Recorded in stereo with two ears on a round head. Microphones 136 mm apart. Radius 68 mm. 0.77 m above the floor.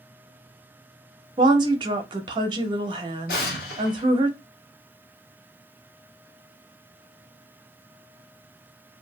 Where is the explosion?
75° left (ahead or behind), 1.3 m.